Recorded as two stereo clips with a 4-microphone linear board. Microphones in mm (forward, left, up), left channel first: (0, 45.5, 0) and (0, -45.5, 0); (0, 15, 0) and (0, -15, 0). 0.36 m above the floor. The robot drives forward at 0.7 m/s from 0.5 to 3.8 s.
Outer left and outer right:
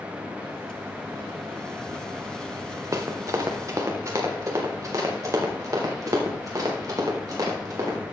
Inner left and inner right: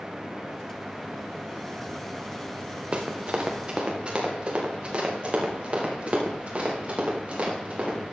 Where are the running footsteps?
40° right (ahead or behind), 2.5 m.